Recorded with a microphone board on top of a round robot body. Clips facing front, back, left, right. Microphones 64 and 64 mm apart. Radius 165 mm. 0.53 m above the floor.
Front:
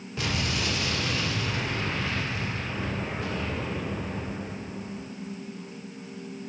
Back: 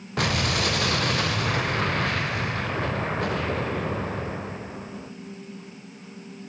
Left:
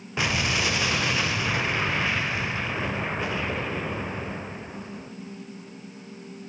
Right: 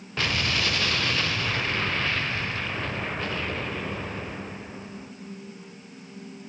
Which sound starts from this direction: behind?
An explosion, at 0.2 s.